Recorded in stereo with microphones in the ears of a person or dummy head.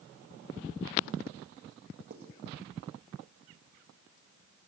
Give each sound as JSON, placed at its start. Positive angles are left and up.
{"t": 2.1, "sound": "writing", "side_deg": -50, "distance_m": 1.8}